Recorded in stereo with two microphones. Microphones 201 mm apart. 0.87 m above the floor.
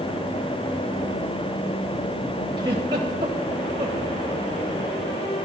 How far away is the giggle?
About 3.5 m.